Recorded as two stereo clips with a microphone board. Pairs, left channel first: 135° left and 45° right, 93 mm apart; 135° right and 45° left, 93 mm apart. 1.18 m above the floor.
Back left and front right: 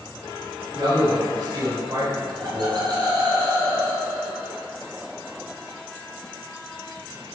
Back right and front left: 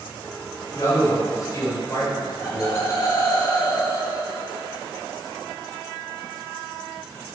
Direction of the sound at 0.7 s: 80° right.